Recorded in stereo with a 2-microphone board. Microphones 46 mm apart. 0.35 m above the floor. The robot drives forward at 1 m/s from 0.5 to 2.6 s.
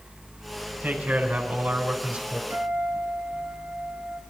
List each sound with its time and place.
0.8 s a man speaking: 50° right (ahead or behind), 4 m; by 2.4 s 40° right (ahead or behind), 5 m
2.5 s a guitar: 50° right (ahead or behind), 7 m